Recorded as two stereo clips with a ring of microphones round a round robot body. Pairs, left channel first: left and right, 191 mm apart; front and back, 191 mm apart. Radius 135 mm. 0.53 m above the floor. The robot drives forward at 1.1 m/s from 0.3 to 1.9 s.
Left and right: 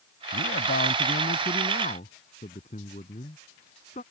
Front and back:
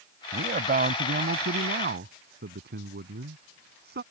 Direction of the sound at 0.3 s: 135° left.